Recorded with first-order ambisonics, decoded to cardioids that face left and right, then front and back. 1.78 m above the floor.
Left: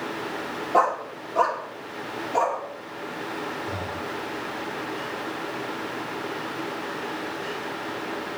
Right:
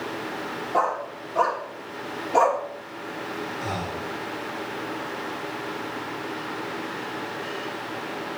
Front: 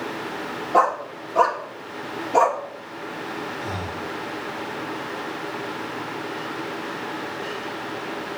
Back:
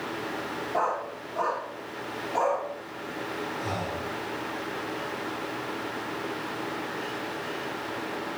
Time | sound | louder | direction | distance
0.7 | a dog barking | left 3 dB, front 9 dB | 20° left | 1.8 m
3.6 | breathing | right 1 dB, front 2 dB | 110° right | 4.5 m